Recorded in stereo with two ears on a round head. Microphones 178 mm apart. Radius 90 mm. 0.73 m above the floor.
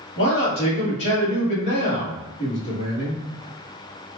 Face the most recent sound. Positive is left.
turn(degrees=45)  # may be behind; listen again after turning